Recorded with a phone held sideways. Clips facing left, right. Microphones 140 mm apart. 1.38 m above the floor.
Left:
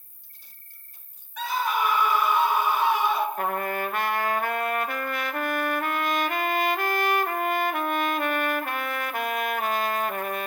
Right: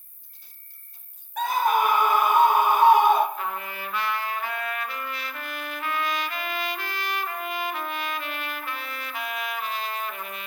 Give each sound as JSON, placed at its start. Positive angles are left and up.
{"t": 0.0, "sound": "an insect", "side_deg": 70, "distance_m": 3.0}
{"t": 1.4, "sound": "a scream", "side_deg": -50, "distance_m": 1.4}
{"t": 3.4, "sound": "a trumpet", "side_deg": 50, "distance_m": 0.7}